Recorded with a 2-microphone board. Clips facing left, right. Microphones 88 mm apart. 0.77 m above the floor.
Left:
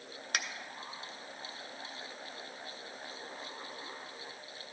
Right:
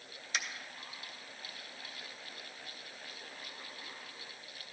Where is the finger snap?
55° left (ahead or behind), 0.6 m.